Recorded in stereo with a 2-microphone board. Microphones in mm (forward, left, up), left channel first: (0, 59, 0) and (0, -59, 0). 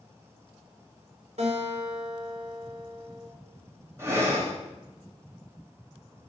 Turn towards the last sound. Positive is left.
turn(degrees=-25)  # may be behind; listen again after turning